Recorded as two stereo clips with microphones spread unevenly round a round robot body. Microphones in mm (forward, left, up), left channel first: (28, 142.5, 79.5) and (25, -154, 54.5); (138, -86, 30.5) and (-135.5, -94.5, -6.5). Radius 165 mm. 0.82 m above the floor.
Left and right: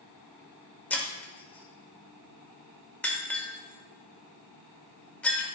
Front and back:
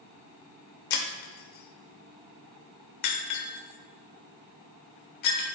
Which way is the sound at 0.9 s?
5° left.